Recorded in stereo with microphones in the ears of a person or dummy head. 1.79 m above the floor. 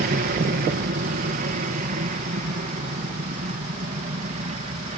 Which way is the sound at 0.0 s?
55° right (ahead or behind).